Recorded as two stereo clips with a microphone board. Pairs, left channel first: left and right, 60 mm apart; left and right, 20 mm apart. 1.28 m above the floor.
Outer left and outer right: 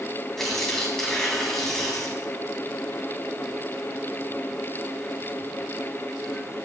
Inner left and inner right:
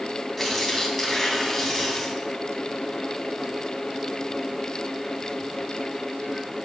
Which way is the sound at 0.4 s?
5° left (ahead or behind).